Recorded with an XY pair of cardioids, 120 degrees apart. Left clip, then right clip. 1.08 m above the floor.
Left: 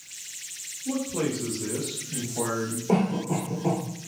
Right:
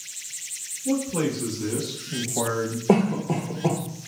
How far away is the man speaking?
About 1.5 m.